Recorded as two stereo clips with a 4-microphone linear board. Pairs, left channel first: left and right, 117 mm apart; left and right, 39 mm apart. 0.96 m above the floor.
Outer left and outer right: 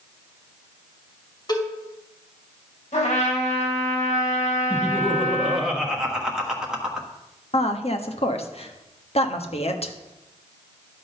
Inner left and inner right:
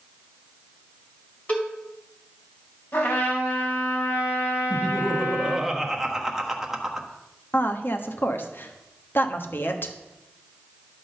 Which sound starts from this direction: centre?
Laughter, at 4.7 s.